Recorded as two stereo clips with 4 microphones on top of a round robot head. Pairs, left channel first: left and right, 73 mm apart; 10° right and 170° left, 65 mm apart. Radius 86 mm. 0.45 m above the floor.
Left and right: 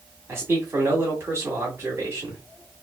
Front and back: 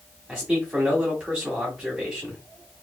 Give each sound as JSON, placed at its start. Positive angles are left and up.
{"t": 0.3, "sound": "a man speaking", "azimuth_deg": -115, "distance_m": 1.6}